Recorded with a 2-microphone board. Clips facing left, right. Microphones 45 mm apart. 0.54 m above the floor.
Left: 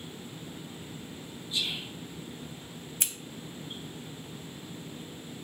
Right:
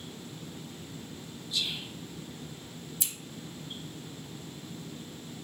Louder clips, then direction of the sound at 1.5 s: Left 1 dB; 25° left (ahead or behind).